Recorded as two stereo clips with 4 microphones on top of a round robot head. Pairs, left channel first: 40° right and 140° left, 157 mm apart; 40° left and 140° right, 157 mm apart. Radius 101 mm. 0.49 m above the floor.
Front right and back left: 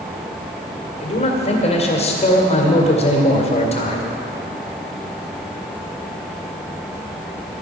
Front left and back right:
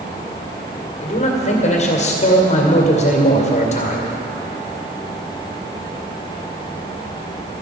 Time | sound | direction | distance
1.0 | a man speaking | straight ahead | 2 m